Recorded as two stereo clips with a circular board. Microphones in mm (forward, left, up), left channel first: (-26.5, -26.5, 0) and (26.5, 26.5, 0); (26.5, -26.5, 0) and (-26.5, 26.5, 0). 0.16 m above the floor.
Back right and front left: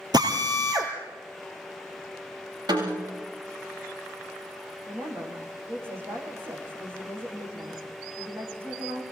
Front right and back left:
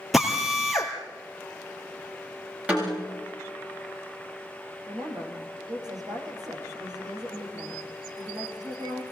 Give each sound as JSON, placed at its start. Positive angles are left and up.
{"t": 0.1, "sound": "a drill", "azimuth_deg": 45, "distance_m": 3.0}
{"t": 2.7, "sound": "a snare drum", "azimuth_deg": 65, "distance_m": 7.5}
{"t": 4.9, "sound": "a woman speaking", "azimuth_deg": 105, "distance_m": 8.0}